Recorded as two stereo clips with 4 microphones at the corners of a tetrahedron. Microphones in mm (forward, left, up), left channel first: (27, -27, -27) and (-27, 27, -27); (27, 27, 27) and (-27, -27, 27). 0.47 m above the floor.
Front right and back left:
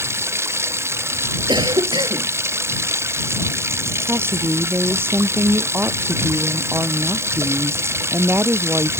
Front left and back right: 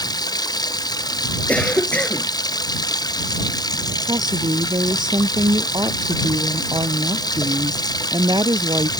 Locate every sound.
0.0 s running water: 80° left
1.5 s a cough: 115° left
4.0 s a woman speaking: 165° right